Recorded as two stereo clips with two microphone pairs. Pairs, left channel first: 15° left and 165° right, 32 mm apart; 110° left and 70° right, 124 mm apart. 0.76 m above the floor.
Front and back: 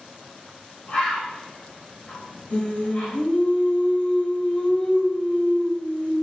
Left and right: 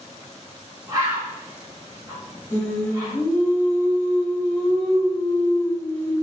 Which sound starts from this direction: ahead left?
Singing, at 2.5 s.